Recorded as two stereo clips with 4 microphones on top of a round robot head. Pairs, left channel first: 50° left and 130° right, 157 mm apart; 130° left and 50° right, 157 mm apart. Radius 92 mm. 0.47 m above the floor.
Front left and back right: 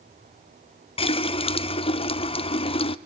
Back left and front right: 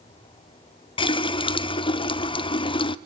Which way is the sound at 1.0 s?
85° left.